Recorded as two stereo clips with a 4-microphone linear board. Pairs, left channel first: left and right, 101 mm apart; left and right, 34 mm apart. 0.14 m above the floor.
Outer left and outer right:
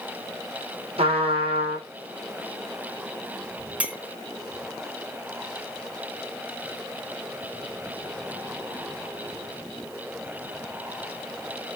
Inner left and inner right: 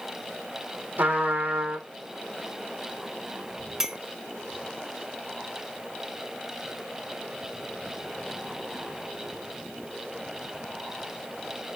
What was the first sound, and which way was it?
A trumpet, 70° right (ahead or behind).